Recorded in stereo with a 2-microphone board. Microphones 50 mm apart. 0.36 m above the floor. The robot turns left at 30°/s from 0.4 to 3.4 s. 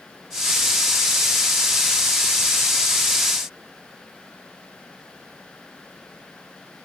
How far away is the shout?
No shout in this recording.